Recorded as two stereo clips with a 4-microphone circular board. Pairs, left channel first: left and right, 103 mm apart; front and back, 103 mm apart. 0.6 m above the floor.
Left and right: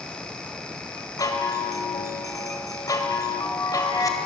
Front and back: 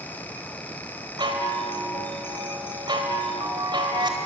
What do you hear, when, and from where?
1.2 s a chime: 140° left, 2.5 m